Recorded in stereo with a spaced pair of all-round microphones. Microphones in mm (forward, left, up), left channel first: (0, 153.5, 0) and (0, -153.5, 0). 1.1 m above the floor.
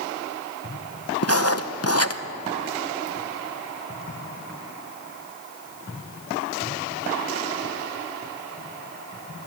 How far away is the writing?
About 0.8 m.